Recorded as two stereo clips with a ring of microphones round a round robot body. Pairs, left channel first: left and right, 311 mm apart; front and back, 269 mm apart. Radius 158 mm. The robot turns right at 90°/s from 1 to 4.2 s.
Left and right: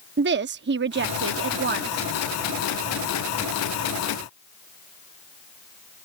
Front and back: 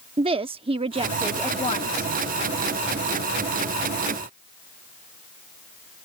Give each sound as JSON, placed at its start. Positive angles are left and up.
{"t": 0.2, "sound": "a woman speaking", "azimuth_deg": -120}